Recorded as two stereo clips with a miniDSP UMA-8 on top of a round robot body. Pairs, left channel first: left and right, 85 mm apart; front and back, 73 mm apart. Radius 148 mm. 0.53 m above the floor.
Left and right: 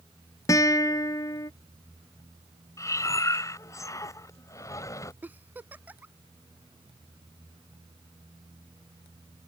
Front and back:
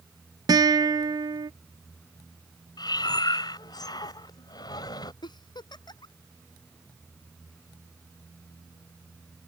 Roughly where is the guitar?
Behind left.